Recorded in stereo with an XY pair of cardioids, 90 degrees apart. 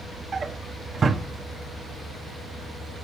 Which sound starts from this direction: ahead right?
A drawer, at 0.3 s.